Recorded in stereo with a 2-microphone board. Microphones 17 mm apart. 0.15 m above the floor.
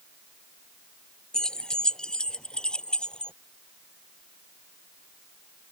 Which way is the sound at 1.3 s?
45° left (ahead or behind).